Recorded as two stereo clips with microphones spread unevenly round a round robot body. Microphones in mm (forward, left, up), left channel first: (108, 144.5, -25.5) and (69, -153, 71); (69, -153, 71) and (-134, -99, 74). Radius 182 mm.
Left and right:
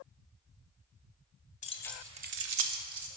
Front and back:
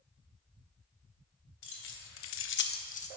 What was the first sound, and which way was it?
Keys jangling, 20° left.